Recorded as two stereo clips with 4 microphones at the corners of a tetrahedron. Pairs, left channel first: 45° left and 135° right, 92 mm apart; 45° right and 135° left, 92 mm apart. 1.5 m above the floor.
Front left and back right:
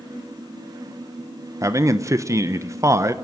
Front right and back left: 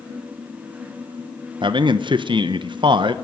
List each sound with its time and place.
1.6 s a man speaking: 165° left, 1.2 m